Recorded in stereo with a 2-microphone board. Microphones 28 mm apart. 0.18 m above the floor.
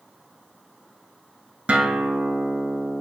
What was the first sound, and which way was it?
A guitar, 50° right (ahead or behind).